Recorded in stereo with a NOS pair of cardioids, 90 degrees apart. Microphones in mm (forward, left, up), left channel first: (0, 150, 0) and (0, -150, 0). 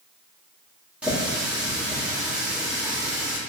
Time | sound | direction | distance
1.0 | a running tap | 5° right | 1.7 m